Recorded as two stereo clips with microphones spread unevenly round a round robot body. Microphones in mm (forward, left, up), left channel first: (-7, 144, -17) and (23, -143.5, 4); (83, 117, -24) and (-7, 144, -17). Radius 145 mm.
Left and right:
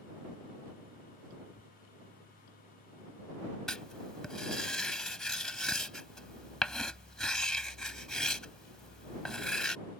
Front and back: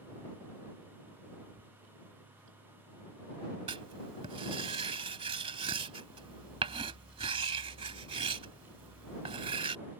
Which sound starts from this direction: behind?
Writing, at 3.7 s.